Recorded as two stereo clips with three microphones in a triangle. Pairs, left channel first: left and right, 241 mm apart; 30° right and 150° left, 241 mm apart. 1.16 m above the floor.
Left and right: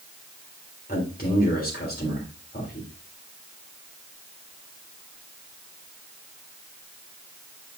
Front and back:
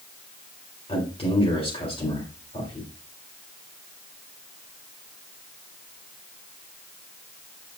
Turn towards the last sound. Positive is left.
turn(degrees=35)